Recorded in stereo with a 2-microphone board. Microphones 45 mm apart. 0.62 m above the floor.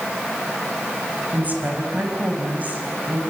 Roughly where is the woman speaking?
Right.